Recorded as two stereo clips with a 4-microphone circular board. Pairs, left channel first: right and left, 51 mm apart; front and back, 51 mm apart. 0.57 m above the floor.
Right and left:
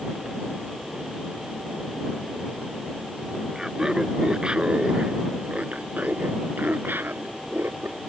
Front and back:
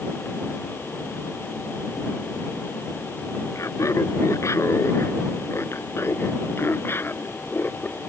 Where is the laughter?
10° left; by 8.0 s 50° left.